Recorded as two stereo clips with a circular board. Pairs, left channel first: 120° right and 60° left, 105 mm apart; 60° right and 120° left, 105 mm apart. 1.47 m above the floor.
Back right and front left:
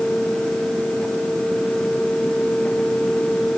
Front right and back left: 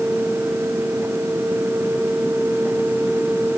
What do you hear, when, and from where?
Only background noise.